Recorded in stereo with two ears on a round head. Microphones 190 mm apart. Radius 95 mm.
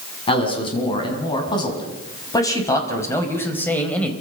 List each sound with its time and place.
0.3 s a man speaking: 25° left (ahead or behind), 7.5 m; by 4.1 s 5° left (ahead or behind), 4.5 m